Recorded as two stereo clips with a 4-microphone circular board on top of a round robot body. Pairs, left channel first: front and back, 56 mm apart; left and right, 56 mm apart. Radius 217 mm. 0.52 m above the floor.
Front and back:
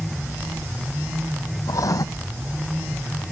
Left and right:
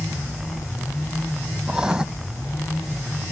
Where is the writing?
10° right.